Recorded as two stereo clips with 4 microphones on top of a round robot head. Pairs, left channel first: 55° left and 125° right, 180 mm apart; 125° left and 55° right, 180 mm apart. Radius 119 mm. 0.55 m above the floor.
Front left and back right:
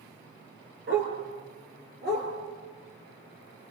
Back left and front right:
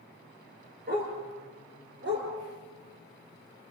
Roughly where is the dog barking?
Right.